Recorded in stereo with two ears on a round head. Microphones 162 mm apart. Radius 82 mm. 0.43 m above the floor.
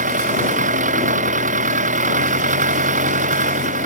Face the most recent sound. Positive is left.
turn(degrees=-45)  # may be behind; listen again after turning